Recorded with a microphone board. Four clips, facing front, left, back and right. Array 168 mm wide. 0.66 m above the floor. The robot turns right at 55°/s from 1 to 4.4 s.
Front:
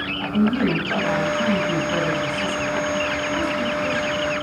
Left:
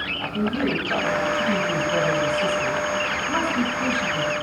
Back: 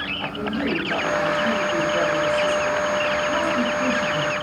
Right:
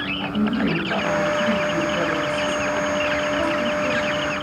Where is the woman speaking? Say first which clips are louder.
Right 2 dB, front 6 dB; 15° right, 4 m; by 4.3 s 170° left, 4 m.